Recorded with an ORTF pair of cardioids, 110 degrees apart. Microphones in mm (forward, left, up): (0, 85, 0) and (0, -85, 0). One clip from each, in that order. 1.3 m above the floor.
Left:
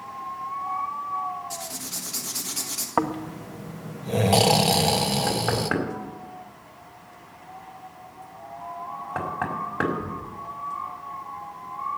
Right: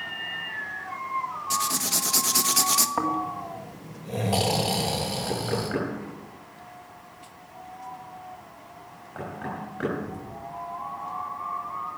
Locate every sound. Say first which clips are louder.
1.5 s writing: right 8 dB; 45° right, 1.3 m
3.0 s snoring: even; 35° left, 1.4 m
5.3 s knocking: left 4 dB; 60° left, 5 m